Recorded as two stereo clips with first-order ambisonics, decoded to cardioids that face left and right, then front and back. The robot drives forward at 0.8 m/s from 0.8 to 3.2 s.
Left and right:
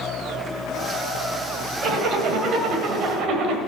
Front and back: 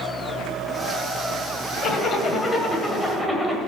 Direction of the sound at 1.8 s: 45° right.